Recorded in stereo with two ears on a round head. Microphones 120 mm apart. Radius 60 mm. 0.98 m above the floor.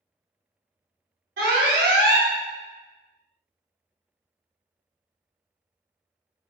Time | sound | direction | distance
1.4 | an alarm | 85° right | 0.9 m